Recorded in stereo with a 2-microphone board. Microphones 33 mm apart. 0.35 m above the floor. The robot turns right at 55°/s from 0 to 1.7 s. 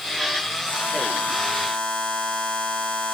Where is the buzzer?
80° left, 5 m; by 3.1 s 140° left, 5 m.